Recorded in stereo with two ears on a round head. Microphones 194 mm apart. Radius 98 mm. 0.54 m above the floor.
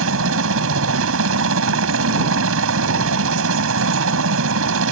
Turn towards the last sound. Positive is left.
turn(degrees=-70)  # may be behind; listen again after turning